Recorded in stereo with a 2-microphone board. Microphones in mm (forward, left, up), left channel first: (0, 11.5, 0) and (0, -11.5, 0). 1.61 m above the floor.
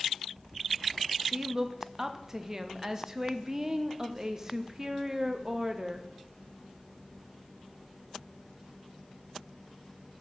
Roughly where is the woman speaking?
Right.